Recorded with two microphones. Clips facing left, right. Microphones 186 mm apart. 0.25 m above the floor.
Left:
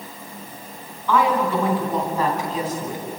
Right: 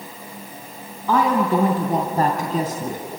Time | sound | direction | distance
1.1 | a woman speaking | 40° right (ahead or behind) | 2.5 m